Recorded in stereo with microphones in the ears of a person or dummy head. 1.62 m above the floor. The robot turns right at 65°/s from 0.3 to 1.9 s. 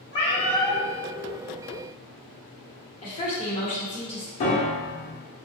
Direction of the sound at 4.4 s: 40° left (ahead or behind).